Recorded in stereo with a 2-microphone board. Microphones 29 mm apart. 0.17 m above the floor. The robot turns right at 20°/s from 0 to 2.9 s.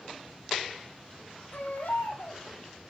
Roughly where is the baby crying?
Left.